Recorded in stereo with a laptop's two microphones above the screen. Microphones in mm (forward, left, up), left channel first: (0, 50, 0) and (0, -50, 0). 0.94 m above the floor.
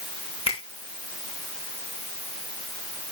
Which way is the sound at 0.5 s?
85° left.